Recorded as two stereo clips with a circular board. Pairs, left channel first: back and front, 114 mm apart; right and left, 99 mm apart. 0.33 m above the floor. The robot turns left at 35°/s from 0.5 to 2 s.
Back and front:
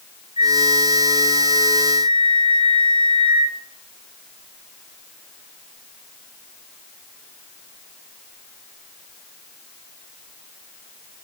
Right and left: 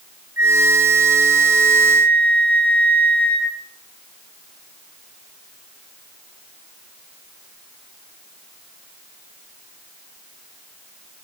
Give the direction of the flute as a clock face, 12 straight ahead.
11 o'clock.